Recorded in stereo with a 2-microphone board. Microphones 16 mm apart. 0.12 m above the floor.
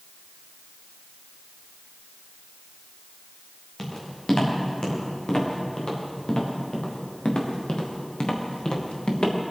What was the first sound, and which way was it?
Footsteps, 45° left (ahead or behind).